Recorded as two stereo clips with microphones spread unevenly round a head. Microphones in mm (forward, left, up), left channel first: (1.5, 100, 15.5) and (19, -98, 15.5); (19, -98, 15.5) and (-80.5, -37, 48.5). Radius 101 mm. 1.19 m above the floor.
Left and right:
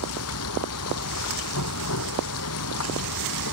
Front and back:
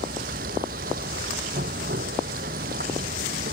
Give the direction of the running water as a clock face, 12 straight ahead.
8 o'clock.